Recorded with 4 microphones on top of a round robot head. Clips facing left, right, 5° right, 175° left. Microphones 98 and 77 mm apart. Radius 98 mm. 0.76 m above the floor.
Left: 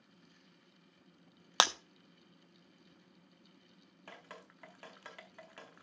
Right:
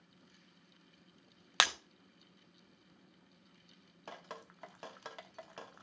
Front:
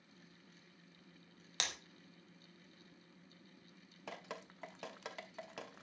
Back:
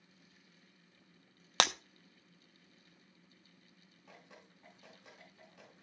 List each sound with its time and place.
1.6 s breaking glass: 155° left, 0.7 m
4.1 s dripping: 20° right, 0.8 m